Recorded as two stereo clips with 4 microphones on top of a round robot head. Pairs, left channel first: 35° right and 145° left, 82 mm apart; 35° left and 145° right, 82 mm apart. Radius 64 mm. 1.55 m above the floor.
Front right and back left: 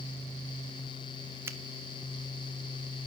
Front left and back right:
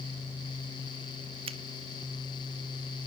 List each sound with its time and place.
1.5 s a finger snap: 155° right, 0.9 m